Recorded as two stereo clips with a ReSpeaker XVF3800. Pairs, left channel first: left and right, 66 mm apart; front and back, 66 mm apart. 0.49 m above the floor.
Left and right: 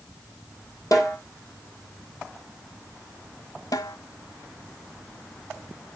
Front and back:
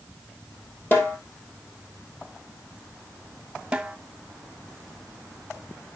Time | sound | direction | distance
0.9 | a snare drum | 60° left | 3 m
3.7 | a snare drum | 105° left | 0.9 m